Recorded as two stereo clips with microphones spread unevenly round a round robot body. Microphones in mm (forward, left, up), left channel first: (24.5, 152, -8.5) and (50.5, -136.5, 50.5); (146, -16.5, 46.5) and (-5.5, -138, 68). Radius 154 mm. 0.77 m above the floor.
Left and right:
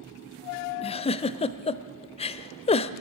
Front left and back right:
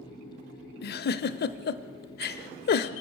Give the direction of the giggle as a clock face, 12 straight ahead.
11 o'clock.